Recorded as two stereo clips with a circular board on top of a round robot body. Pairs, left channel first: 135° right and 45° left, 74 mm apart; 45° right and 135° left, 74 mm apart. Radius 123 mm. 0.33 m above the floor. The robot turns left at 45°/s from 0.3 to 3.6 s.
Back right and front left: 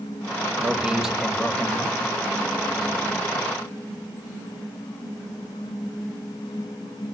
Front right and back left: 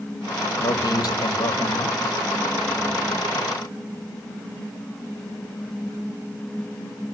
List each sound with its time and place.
0.6 s a man speaking: 20° right, 2 m; by 2.0 s 85° right, 2 m